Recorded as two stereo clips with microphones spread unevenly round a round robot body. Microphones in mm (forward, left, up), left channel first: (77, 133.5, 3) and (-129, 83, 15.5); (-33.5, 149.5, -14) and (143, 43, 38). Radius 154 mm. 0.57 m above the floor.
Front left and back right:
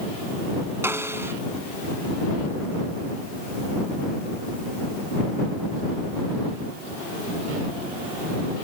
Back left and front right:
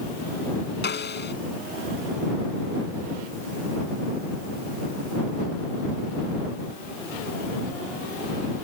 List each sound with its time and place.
0.8 s a snare drum: 115° left